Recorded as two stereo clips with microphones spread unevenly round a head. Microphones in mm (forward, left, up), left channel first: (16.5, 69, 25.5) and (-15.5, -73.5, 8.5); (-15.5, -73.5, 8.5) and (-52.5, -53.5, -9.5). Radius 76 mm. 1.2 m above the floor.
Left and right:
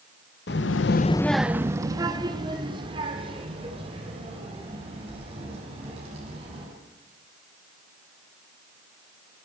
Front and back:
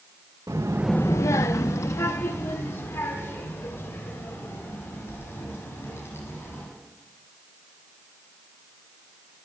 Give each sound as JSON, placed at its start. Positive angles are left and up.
{"t": 0.5, "sound": "a child speaking", "azimuth_deg": 100, "distance_m": 0.9}